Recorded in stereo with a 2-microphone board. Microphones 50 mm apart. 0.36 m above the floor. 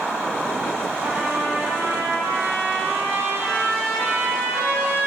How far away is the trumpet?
About 1.6 m.